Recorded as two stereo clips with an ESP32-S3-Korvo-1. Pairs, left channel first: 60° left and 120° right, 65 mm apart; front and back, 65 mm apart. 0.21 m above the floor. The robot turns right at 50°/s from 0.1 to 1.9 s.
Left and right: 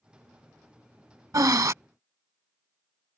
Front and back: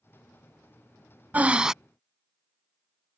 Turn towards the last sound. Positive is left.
turn(degrees=-90)